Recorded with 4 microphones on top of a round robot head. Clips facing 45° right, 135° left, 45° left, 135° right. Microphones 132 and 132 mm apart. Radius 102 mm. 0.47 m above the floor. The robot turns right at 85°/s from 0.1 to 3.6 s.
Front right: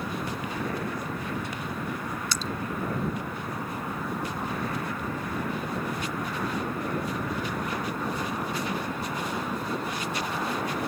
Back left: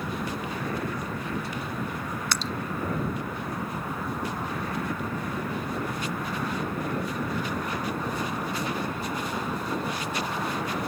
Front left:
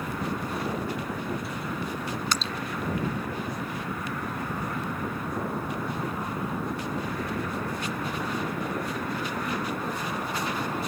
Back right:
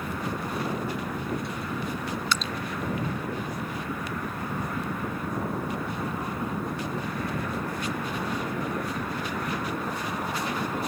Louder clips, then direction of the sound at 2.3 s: Back left 3 dB, back right 1 dB; 100° left.